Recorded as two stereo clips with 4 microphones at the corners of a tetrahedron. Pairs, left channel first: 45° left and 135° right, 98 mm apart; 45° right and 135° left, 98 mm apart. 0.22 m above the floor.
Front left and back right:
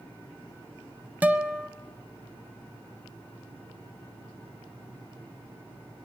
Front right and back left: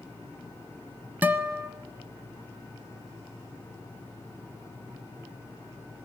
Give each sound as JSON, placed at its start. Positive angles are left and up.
{"t": 1.2, "sound": "a guitar", "azimuth_deg": 175, "distance_m": 1.2}